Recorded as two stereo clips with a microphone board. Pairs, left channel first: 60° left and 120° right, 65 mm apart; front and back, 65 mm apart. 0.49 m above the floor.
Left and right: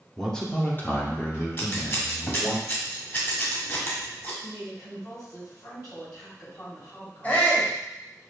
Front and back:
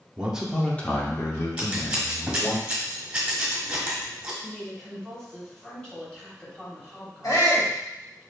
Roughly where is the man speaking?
Behind left.